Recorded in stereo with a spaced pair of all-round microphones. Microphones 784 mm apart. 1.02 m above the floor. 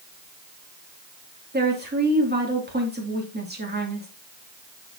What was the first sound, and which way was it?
A woman speaking, 10° right (ahead or behind).